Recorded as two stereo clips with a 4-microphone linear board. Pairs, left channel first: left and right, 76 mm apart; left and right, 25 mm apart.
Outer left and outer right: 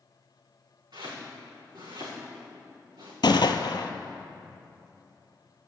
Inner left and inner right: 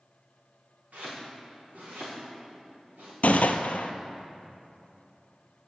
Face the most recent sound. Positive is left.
turn(degrees=80)